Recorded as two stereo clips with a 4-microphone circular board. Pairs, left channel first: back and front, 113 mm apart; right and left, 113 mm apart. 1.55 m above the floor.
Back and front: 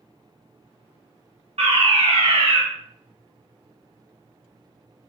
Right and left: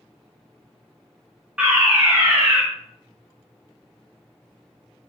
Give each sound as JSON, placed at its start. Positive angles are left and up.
{"t": 1.6, "sound": "a fire alarm", "azimuth_deg": 10, "distance_m": 1.6}